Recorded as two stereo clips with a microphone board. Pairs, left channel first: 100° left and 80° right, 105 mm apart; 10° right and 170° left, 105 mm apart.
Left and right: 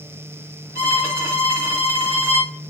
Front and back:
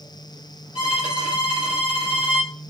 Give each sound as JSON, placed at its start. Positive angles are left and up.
{"t": 0.8, "sound": "a violin", "azimuth_deg": -20, "distance_m": 1.4}